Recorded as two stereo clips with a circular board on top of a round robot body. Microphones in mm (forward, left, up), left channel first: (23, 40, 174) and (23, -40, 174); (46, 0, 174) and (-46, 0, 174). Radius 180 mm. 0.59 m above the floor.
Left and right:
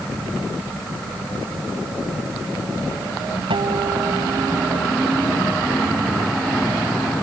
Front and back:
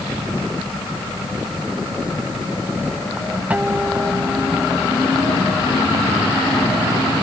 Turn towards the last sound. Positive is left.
turn(degrees=-105)